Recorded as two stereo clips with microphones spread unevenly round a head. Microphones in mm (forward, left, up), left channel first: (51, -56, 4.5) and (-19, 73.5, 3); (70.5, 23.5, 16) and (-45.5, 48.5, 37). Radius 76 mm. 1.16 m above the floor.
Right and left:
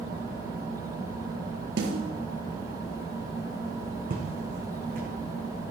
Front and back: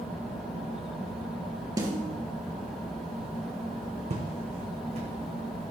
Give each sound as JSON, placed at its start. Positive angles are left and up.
{"t": 1.8, "sound": "a snare drum", "azimuth_deg": 115, "distance_m": 3.5}
{"t": 4.1, "sound": "footsteps", "azimuth_deg": 150, "distance_m": 3.0}